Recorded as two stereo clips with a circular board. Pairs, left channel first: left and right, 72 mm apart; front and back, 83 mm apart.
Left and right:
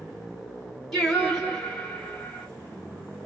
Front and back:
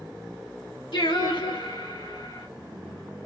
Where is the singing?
5° left, 2.5 m.